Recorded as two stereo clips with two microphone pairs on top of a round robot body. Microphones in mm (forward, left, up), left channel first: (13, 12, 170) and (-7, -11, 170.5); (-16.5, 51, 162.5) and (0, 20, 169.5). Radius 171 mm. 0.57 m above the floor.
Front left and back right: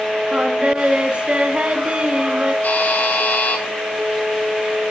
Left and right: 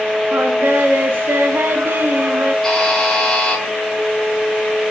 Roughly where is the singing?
Right.